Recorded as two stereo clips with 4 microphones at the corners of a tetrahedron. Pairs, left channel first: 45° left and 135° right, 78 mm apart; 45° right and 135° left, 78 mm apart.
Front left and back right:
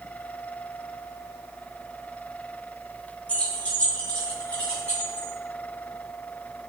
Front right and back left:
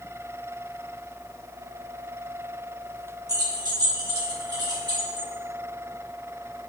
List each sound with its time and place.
3.3 s keys jangling: 115° left, 0.6 m; by 5.3 s 120° left, 3 m